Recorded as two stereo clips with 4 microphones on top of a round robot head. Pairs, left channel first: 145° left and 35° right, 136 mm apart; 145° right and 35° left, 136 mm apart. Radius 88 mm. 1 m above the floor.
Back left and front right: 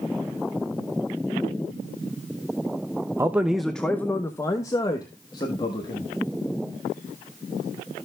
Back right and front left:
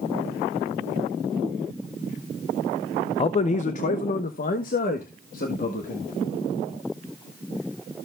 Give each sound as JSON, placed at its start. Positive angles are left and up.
{"t": 3.2, "sound": "a man speaking", "azimuth_deg": -105, "distance_m": 0.6}